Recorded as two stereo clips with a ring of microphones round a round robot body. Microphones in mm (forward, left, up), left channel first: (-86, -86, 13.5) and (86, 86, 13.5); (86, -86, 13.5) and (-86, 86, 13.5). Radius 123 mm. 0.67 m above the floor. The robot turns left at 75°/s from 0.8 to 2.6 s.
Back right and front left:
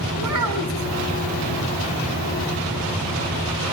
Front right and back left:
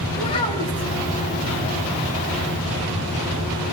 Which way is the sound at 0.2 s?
25° left.